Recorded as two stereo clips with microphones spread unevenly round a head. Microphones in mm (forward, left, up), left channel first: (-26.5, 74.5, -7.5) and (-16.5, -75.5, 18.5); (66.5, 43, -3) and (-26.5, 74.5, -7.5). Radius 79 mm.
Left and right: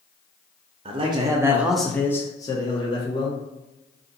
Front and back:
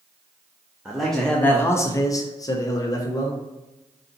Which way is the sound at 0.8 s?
110° right.